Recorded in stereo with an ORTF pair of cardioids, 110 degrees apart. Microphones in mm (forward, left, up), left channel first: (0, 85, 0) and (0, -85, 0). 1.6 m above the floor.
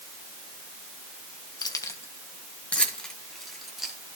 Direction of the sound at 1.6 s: 25° left.